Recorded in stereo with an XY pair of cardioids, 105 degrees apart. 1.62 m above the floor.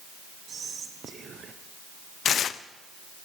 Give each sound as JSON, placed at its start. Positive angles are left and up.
{"t": 0.5, "sound": "whispering", "azimuth_deg": -45, "distance_m": 1.0}
{"t": 2.2, "sound": "tearing paper", "azimuth_deg": 55, "distance_m": 0.6}